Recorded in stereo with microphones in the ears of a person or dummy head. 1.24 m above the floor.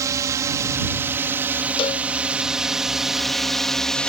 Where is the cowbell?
30° left (ahead or behind).